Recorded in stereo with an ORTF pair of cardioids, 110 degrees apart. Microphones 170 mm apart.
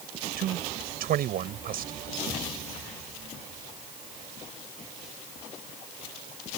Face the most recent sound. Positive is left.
turn(degrees=-60)